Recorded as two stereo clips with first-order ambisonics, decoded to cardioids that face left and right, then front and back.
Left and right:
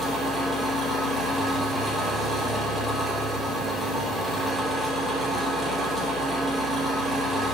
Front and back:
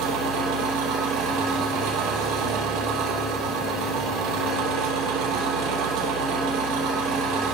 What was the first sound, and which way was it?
An engine running, 170° right.